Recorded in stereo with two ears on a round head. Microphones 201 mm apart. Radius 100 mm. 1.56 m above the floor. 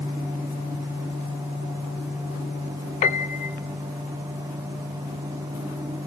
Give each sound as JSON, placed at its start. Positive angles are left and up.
{"t": 3.0, "sound": "a piano", "side_deg": 35, "distance_m": 1.0}